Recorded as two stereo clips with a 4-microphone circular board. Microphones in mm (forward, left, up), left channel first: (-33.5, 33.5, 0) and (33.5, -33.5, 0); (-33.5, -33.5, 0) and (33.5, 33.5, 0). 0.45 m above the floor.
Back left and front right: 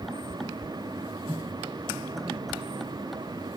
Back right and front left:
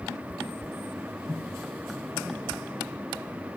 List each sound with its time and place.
1.3 s a microwave: 35° right, 9.5 m